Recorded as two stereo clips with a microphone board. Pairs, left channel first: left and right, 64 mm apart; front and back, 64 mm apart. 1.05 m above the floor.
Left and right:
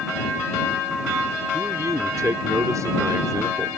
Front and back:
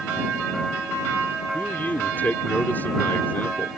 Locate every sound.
1.5 s a man speaking: 60° right